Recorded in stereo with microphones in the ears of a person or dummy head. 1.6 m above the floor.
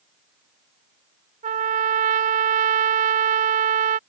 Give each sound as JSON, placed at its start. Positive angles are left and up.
{"t": 1.4, "sound": "a trumpet", "side_deg": -50}